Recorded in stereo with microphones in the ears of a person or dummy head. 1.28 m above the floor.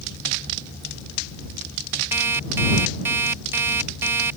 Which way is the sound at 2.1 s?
15° right (ahead or behind).